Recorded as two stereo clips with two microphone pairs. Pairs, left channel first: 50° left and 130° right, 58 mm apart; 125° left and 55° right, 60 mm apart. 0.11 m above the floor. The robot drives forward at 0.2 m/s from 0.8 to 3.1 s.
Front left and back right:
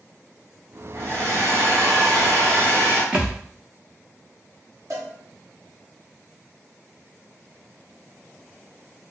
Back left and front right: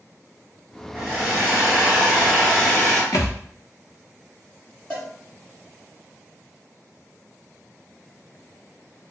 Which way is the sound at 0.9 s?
125° right.